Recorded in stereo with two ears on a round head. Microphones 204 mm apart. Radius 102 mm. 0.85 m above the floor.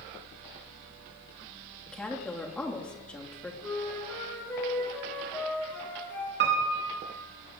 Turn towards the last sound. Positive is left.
turn(degrees=-50)  # may be behind; listen again after turning